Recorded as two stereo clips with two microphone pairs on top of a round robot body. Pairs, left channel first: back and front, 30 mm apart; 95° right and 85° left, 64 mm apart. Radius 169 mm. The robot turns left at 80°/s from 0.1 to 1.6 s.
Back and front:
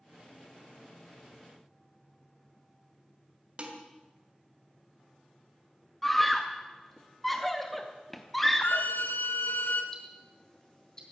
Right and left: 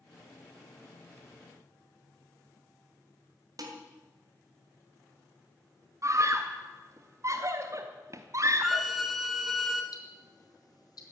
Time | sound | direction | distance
3.6 | dishes clattering | 55° left | 3 m
6.0 | a scream | 105° left | 1.0 m
8.6 | a violin | 170° left | 1.4 m
9.9 | ticking | 110° right | 4 m